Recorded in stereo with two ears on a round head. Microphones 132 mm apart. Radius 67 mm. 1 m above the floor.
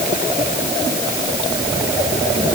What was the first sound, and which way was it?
Only background noise.